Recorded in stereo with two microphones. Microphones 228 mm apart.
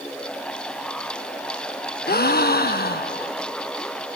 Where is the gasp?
45° left (ahead or behind), 0.6 m.